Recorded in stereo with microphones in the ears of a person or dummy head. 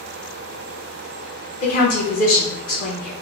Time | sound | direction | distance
1.6 | a woman speaking | 40° left (ahead or behind) | 0.9 m